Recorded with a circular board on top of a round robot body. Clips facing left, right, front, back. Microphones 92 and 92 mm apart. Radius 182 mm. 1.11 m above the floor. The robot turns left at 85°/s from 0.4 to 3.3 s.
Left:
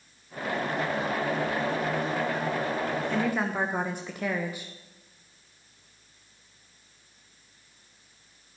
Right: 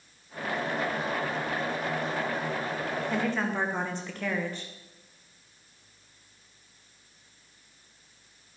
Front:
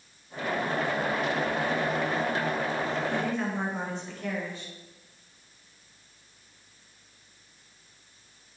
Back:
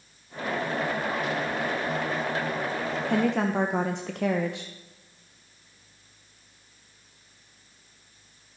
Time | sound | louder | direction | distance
3.1 | a woman speaking | right 1 dB, back 5 dB | 170° right | 1.5 m